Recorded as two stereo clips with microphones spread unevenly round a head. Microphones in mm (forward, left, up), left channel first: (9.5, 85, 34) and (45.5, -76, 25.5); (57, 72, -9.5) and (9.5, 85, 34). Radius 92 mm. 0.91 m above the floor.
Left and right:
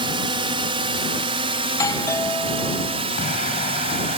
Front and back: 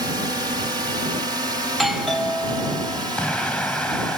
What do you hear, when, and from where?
0.0 s a drone: 130° right
1.7 s a doorbell: 30° left
3.2 s an explosion: 60° left